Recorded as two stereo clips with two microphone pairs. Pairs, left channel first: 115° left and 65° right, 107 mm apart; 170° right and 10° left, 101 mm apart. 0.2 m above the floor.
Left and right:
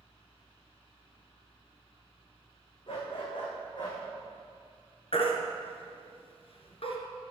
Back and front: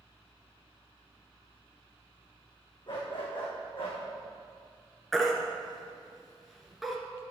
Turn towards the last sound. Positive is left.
turn(degrees=100)